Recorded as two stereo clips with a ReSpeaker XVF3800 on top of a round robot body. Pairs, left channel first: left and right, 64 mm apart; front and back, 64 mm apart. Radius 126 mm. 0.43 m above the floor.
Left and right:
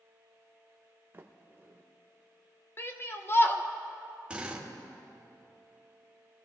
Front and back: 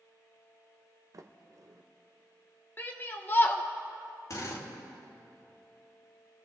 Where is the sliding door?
150° right, 0.9 m.